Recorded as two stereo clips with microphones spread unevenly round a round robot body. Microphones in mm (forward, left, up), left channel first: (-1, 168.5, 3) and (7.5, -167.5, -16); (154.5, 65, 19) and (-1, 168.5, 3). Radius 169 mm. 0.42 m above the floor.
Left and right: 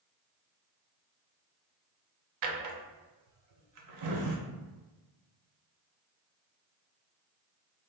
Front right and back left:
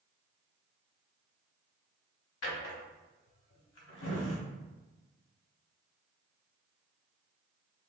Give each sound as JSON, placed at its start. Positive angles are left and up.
{"t": 2.4, "sound": "a drawer", "azimuth_deg": -50, "distance_m": 0.5}